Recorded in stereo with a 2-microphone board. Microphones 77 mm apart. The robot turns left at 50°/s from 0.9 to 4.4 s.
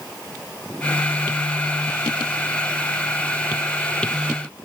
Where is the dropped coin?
No dropped coin in this recording.